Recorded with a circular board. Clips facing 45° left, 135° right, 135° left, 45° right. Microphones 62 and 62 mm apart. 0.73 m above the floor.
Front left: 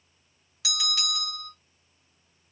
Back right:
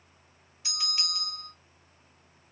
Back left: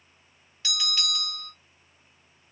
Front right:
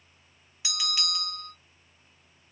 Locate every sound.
0.6 s a bell: 30° left, 2 m